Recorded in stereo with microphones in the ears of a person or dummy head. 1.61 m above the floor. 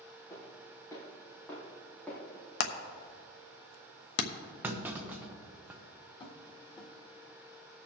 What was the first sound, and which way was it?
Footsteps, 25° left (ahead or behind).